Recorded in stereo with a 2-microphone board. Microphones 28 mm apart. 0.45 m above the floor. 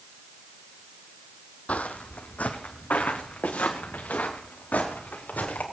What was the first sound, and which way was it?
Footsteps, 55° left (ahead or behind).